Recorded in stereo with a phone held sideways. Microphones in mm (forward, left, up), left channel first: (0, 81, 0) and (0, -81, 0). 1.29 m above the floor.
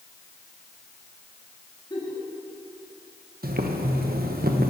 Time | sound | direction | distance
1.9 | a giggle | 30° left (ahead or behind) | 2.5 m
3.4 | boiling | 65° right (ahead or behind) | 0.9 m